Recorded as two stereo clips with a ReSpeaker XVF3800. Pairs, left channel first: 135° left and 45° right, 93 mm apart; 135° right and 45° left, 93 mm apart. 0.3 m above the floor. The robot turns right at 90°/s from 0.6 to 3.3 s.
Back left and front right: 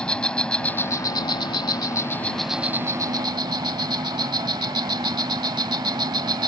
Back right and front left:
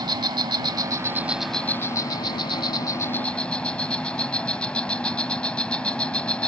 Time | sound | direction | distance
0.0 | an insect | 55° left | ?